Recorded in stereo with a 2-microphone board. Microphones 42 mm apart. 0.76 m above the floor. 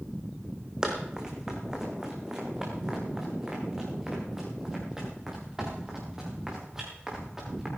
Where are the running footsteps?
10° right (ahead or behind), 2.5 m.